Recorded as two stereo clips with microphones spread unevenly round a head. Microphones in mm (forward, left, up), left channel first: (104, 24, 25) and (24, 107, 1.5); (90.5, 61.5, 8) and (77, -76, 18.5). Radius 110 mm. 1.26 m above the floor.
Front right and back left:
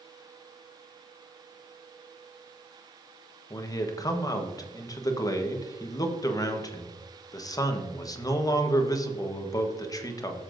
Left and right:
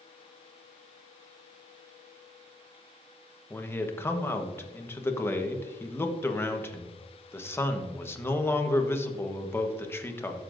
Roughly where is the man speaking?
Ahead.